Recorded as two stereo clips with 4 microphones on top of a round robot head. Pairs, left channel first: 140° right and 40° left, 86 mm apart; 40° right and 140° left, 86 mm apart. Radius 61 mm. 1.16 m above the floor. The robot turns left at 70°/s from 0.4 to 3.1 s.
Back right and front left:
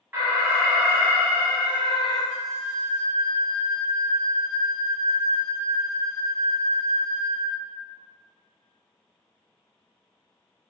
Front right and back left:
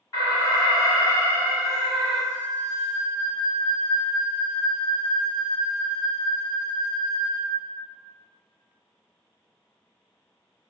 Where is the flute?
135° left, 1.4 m; by 7.6 s 75° left, 1.4 m.